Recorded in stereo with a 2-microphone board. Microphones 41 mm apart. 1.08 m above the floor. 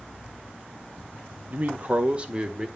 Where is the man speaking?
40° right (ahead or behind), 1.0 m; by 2.7 s 20° right (ahead or behind), 1.6 m.